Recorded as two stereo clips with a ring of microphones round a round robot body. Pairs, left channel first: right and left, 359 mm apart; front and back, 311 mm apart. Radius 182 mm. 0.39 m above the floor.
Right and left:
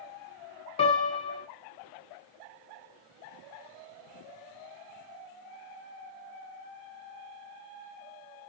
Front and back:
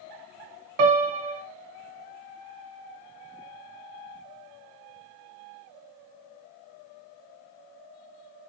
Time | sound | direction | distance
0.8 | a piano | 165° right | 0.7 m